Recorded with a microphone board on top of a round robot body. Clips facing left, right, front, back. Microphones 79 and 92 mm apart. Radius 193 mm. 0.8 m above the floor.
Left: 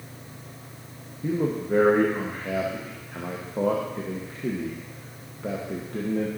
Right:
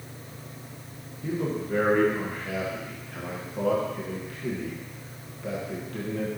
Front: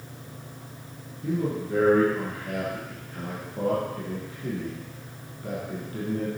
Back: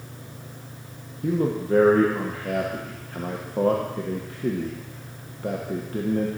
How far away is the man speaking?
About 1.4 m.